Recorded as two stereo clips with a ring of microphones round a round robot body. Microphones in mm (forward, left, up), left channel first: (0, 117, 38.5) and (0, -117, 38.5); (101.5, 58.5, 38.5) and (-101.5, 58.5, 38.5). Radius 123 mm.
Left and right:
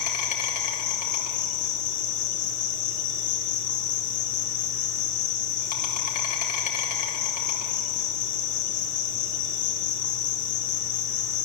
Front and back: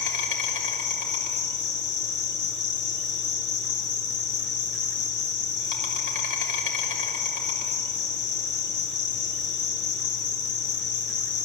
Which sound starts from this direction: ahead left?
An insect, at 0.0 s.